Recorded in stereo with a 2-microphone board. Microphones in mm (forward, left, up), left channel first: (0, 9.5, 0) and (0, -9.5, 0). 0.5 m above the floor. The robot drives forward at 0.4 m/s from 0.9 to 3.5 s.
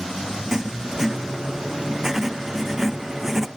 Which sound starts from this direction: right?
Writing, at 0.5 s.